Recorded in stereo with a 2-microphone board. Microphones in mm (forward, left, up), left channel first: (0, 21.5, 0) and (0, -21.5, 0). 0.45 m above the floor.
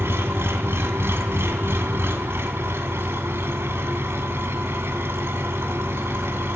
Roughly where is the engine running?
Right.